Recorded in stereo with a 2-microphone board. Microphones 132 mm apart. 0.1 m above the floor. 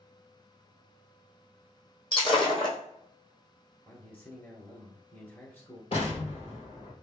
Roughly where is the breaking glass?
Left.